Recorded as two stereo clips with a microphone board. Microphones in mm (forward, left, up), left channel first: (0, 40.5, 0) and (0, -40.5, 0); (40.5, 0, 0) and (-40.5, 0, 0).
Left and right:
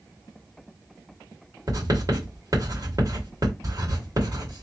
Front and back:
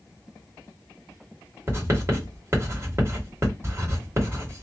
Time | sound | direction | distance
1.7 | writing | 130° right | 2.5 m